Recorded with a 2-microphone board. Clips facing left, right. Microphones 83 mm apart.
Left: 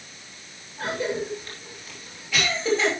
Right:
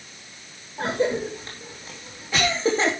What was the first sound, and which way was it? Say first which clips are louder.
A cough: right 4 dB; 30° right (ahead or behind).